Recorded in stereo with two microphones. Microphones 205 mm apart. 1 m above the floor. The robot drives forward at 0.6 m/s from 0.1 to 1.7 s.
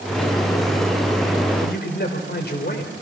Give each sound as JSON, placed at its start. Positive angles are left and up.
{"t": 1.6, "sound": "a man speaking", "side_deg": 55, "distance_m": 3.5}